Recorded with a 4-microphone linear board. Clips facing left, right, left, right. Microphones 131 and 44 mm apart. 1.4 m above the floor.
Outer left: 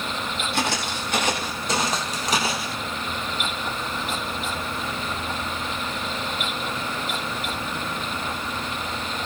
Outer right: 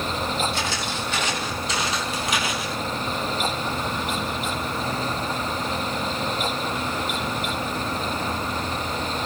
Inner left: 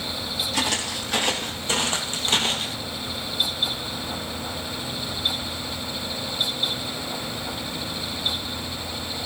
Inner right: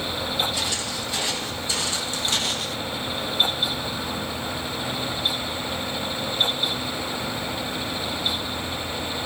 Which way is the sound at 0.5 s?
65° left (ahead or behind).